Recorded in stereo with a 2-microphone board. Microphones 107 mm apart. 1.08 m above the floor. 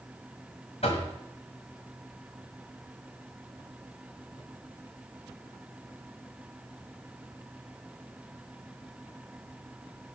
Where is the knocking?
65° left (ahead or behind), 1.6 m.